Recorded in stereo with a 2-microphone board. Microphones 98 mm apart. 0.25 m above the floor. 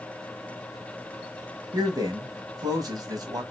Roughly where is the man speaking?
Right.